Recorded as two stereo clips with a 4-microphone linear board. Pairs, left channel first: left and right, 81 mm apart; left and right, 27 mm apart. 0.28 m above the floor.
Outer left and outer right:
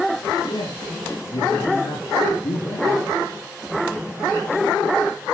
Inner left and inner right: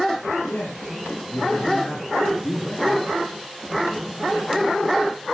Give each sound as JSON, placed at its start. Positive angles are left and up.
{"t": 0.4, "sound": "a man speaking", "side_deg": 75, "distance_m": 7.0}